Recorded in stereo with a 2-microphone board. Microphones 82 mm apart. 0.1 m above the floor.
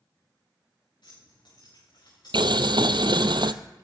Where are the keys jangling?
65° left (ahead or behind), 8 m; by 3.3 s 50° left (ahead or behind), 7.5 m.